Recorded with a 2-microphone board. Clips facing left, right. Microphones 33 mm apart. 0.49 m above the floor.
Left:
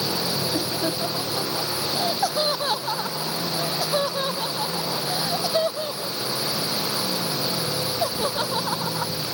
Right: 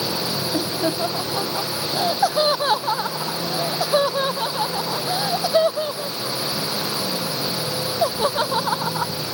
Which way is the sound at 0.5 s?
25° right (ahead or behind).